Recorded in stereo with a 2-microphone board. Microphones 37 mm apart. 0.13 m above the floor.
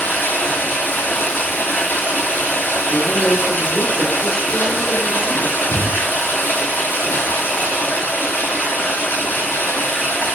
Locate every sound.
0.0 s running water: 75° left (ahead or behind), 0.8 m
2.9 s a woman speaking: 15° right (ahead or behind), 1.2 m
5.6 s breathing: 30° right (ahead or behind), 1.4 m